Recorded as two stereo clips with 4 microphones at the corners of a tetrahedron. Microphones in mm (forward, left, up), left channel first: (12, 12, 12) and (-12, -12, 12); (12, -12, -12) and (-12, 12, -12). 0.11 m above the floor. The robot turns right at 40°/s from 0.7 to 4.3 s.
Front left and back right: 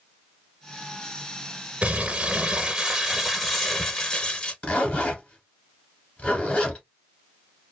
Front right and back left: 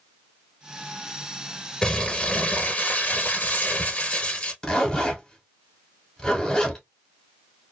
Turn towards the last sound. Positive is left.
turn(degrees=15)